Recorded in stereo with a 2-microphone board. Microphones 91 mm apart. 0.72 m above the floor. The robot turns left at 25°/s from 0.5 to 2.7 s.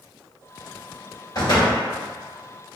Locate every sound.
1.4 s a door slam: 50° left (ahead or behind), 1.9 m; by 1.8 s 35° left (ahead or behind), 1.9 m